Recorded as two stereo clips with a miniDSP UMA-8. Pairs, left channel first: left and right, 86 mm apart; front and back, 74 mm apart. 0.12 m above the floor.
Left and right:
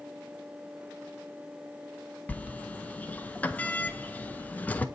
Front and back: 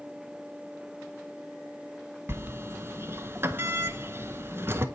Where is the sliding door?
150° left, 0.5 m.